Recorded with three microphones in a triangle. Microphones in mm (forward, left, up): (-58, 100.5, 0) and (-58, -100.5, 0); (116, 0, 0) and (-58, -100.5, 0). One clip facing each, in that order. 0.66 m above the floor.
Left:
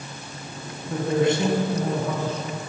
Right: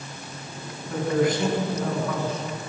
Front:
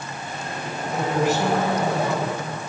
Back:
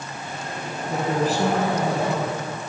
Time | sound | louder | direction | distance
0.9 | a man speaking | left 1 dB, front 1 dB | 155° left | 7 m